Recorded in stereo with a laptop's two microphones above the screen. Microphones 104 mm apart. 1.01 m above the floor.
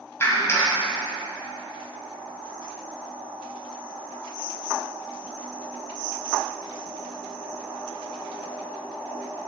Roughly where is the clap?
Left.